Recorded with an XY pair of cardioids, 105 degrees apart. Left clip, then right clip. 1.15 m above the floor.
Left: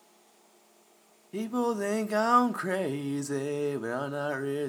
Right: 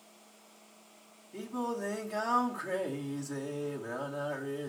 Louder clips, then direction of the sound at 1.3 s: Left 7 dB; 65° left.